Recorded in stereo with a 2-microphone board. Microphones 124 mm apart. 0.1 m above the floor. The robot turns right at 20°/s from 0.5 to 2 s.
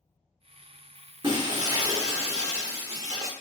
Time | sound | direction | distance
1.2 | breaking glass | 40° right (ahead or behind) | 0.6 m